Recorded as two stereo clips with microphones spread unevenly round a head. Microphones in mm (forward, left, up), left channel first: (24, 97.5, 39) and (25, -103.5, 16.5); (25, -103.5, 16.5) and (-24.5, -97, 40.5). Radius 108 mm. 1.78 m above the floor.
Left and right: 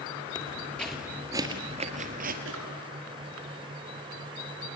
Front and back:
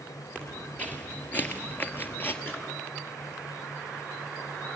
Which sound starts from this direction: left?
Footsteps, at 0.3 s.